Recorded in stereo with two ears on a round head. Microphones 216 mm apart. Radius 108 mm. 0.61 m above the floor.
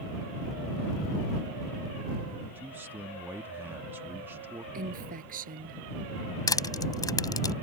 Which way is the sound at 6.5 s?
15° left (ahead or behind).